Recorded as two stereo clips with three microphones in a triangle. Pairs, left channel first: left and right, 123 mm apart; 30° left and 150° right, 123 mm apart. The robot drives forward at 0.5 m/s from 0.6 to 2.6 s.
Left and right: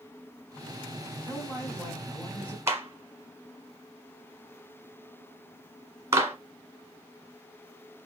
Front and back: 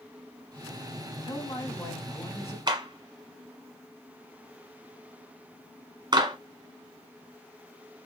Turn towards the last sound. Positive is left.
turn(degrees=-145)